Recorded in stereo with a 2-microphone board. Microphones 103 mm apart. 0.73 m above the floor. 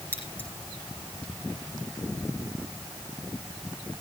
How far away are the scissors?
About 9.5 m.